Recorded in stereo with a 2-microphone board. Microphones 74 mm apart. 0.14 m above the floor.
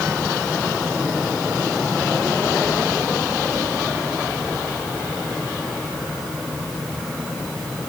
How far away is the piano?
I don't hear a piano.